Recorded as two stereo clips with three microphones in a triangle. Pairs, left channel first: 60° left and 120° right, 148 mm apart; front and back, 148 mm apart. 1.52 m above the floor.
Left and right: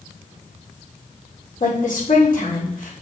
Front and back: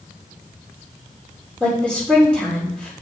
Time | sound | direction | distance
1.6 | a woman speaking | 80° left | 3.5 m